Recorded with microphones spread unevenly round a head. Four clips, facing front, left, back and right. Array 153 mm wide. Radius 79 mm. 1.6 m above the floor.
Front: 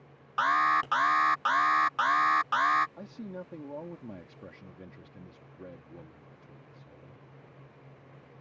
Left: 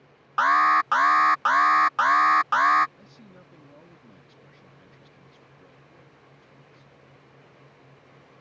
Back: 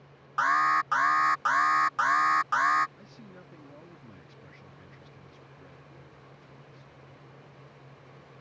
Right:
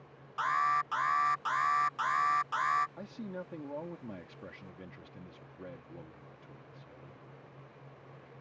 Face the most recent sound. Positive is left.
turn(degrees=-35)